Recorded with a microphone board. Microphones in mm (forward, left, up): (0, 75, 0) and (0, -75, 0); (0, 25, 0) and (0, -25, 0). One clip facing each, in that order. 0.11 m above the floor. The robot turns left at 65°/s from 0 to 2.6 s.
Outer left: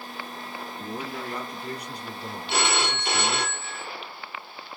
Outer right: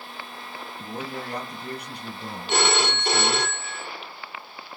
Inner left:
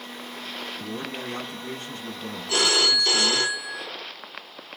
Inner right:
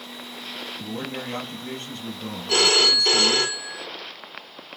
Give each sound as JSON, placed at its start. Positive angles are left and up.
{"t": 0.8, "sound": "a man speaking", "azimuth_deg": -15, "distance_m": 2.5}
{"t": 2.5, "sound": "a phone ringing", "side_deg": -45, "distance_m": 1.5}